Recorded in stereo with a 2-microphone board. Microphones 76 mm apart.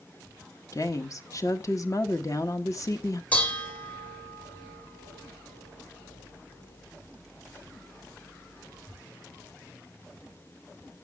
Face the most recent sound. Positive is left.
turn(degrees=20)  # may be behind; listen again after turning